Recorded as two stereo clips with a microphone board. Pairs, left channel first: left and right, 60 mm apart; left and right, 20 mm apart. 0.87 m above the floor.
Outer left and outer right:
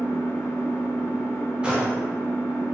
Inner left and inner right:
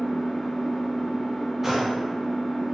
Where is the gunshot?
15° right (ahead or behind), 0.9 m.